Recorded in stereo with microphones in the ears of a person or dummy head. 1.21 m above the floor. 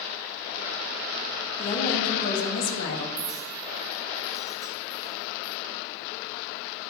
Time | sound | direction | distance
1.6 | a woman speaking | 50° left (ahead or behind) | 2.5 m
3.2 | a clink | 10° right (ahead or behind) | 0.7 m